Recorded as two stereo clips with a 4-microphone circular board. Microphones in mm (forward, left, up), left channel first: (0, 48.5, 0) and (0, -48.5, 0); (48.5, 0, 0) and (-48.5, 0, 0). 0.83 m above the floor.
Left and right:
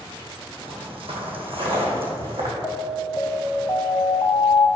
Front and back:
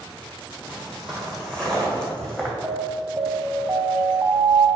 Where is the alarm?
135° left, 0.9 m.